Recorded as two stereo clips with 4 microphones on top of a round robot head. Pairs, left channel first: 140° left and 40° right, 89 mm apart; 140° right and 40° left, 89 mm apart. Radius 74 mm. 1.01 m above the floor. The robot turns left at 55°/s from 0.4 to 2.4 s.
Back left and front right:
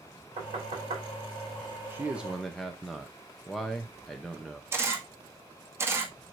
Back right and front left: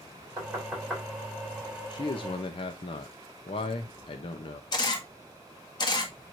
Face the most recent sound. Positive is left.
turn(degrees=-100)